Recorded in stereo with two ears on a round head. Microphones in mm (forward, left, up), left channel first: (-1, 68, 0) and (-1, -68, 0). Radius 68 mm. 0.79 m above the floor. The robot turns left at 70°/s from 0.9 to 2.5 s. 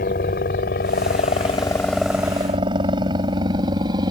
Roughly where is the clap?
No clap in this recording.